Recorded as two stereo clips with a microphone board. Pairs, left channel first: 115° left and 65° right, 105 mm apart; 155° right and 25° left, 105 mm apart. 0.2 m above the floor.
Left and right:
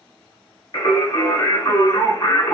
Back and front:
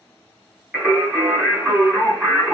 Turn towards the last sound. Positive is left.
turn(degrees=105)